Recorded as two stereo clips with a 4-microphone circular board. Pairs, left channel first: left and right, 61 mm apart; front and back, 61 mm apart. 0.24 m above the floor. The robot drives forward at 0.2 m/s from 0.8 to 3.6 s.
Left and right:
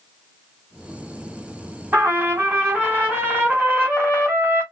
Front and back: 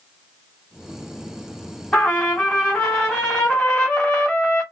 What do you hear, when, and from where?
1.9 s a trumpet: 65° right, 1.8 m; by 4.6 s 85° right, 1.8 m